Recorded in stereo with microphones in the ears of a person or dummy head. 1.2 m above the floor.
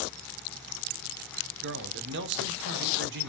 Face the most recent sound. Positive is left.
turn(degrees=-60)  # may be behind; listen again after turning